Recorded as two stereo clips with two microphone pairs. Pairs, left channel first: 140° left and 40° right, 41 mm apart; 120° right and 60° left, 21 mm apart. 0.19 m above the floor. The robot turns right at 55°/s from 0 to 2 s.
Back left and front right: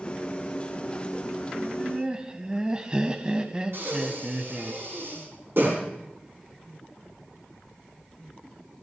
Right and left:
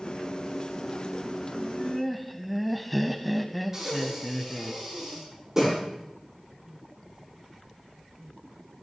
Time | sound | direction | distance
1.5 | laughter | 60° right | 1.0 m
3.7 | breathing | 10° right | 8 m